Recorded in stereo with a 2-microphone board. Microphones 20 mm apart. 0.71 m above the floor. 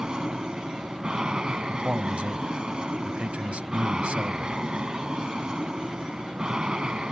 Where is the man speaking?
75° right (ahead or behind).